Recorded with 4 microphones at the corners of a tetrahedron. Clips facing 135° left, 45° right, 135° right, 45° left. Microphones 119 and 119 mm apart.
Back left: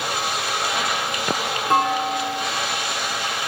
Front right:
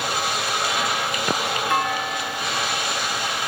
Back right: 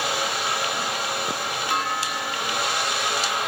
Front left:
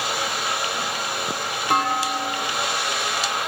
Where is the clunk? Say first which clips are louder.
Back left 7 dB, front left 7 dB; 85° left, 0.8 m.